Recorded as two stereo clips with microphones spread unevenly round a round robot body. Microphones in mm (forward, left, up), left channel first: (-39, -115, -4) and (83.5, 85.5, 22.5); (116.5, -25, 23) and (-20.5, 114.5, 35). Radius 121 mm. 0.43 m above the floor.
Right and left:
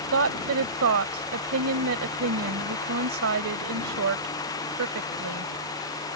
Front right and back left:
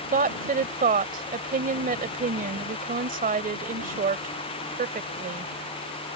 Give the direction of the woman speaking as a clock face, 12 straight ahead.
9 o'clock.